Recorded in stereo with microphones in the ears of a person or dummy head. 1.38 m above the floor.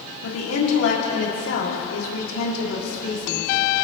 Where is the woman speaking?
85° left, 3 m.